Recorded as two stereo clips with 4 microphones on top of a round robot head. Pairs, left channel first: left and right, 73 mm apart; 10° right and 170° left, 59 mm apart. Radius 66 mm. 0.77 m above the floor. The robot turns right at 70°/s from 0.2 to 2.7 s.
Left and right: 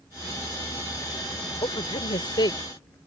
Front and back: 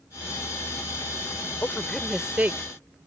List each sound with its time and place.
1.6 s a woman speaking: 50° left; by 2.6 s 120° left